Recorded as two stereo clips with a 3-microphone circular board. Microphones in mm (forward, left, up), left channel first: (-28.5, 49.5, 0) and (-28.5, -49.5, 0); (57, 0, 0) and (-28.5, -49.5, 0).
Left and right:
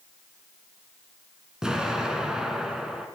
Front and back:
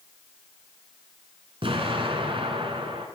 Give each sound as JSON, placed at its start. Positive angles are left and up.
{"t": 1.6, "sound": "an explosion", "azimuth_deg": -175, "distance_m": 2.0}